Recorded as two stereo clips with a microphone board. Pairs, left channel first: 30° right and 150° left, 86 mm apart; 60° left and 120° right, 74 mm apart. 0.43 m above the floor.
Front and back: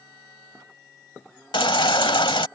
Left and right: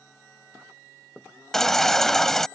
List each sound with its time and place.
1.5 s a baby crying: 25° right